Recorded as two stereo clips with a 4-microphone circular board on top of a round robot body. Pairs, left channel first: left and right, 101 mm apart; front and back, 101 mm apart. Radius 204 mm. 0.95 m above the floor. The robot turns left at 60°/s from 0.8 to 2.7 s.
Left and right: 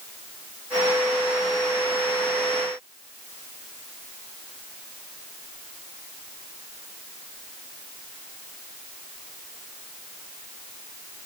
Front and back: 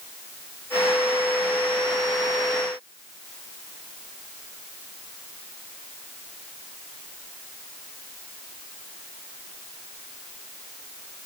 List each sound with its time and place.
Only background noise.